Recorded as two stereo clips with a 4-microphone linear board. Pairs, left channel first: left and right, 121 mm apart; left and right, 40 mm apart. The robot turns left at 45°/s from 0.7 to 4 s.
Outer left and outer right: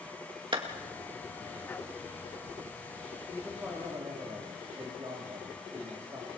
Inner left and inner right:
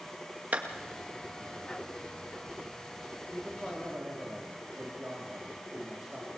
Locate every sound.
0.5 s a clap: 45° right (ahead or behind), 2 m
3.3 s a man speaking: straight ahead, 3.5 m; by 6.3 s 30° right, 3.5 m